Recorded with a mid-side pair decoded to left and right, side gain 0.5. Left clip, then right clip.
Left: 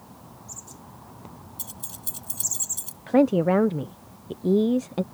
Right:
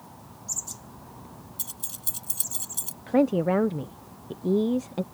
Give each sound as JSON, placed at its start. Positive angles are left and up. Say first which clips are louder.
{"t": 1.6, "sound": "keys jangling", "louder": "right 2 dB", "azimuth_deg": -15}
{"t": 3.1, "sound": "a woman speaking", "louder": "left 3 dB", "azimuth_deg": 20}